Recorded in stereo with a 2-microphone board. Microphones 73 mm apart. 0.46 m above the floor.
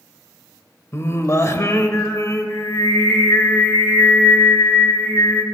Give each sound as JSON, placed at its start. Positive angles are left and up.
{"t": 0.9, "sound": "singing", "side_deg": 40, "distance_m": 1.0}